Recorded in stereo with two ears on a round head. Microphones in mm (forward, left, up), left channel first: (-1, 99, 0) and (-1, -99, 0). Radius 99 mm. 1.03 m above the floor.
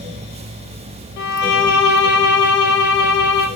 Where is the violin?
60° left (ahead or behind), 0.9 m.